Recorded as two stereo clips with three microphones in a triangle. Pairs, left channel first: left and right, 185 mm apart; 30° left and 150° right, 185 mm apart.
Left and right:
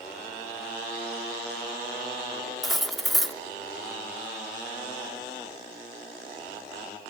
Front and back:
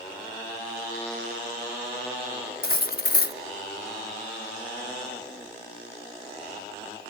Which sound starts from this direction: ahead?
Cutlery clinking, at 2.6 s.